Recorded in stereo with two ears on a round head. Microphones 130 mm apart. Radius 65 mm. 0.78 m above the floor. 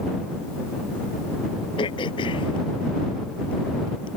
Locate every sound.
1.8 s throat clearing: 35° left (ahead or behind)